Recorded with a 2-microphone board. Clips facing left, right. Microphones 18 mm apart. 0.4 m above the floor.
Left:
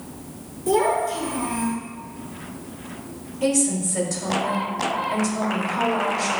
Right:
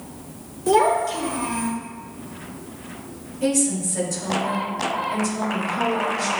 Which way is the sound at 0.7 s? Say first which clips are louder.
Right 2 dB; 25° right (ahead or behind).